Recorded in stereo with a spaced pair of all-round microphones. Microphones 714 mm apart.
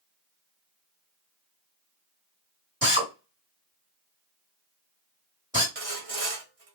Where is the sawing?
55° right (ahead or behind), 1.1 m.